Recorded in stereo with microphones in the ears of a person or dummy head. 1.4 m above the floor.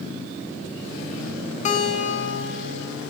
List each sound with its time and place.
1.6 s a guitar: 35° left (ahead or behind), 0.8 m